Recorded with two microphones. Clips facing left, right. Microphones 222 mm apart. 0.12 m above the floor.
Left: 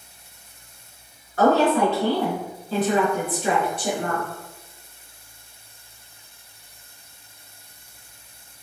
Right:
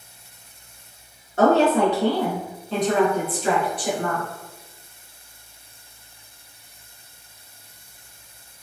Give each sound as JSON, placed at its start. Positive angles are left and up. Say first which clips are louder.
{"t": 1.4, "sound": "a woman speaking", "louder": "right 1 dB", "side_deg": -25, "distance_m": 1.3}